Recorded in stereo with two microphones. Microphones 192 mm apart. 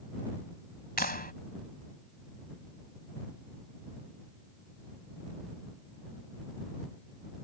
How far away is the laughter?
I don't hear laughter.